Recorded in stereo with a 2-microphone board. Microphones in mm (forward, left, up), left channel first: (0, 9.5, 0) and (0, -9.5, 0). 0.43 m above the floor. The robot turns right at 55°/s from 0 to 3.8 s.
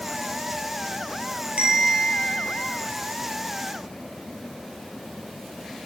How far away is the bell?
About 1.8 m.